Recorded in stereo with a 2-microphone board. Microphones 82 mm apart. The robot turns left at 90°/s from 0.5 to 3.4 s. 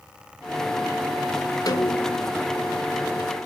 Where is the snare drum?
130° left, 0.7 m; by 2.3 s 75° left, 0.7 m.